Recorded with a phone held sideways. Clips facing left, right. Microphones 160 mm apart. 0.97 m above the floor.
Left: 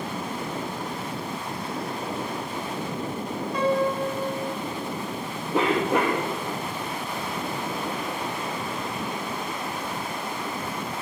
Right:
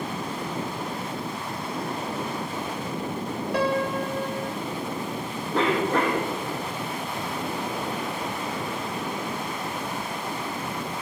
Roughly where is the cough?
Centre.